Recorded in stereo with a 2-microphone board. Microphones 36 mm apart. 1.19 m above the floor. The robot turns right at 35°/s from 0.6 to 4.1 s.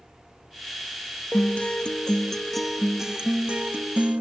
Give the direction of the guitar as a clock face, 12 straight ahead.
8 o'clock.